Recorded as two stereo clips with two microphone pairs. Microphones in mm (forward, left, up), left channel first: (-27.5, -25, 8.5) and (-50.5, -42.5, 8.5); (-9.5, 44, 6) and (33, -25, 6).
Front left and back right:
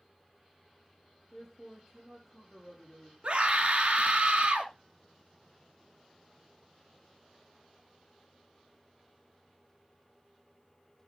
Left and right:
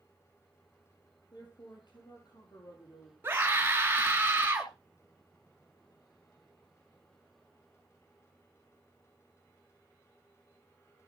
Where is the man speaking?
120° left, 4.5 m.